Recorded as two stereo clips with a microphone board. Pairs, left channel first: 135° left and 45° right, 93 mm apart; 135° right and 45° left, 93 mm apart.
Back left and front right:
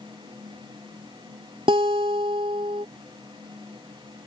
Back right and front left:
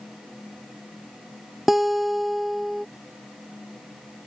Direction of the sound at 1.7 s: 45° right.